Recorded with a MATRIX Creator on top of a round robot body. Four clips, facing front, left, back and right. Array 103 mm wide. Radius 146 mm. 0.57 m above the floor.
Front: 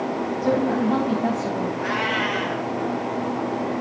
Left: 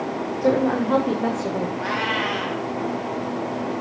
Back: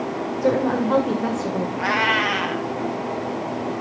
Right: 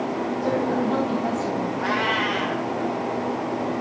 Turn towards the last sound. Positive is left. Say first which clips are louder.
# right 1 dB, back 3 dB
turn(degrees=180)